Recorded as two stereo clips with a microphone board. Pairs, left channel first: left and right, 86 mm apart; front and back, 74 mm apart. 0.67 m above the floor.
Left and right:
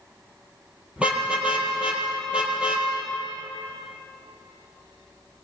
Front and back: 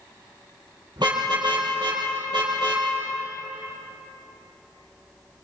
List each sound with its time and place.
1.0 s a car horn: 165° right, 7 m